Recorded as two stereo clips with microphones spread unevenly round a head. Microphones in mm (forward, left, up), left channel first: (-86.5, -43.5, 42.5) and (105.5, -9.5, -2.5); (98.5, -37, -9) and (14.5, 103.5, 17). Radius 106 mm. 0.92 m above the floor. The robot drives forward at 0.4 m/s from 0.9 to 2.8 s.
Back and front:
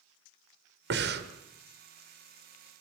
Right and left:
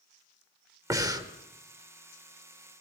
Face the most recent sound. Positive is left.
turn(degrees=70)